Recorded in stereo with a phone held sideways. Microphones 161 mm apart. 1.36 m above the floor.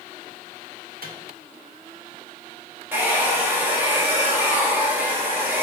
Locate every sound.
1.0 s a microwave: 70° right (ahead or behind), 0.8 m
2.9 s a hair dryer: 10° right (ahead or behind), 1.0 m